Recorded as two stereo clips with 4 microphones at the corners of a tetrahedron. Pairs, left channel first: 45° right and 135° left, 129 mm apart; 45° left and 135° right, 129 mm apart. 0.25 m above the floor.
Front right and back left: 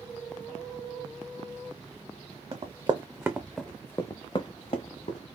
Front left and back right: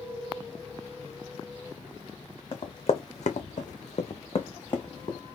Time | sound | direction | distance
2.5 | running footsteps | 90° left | 1.0 m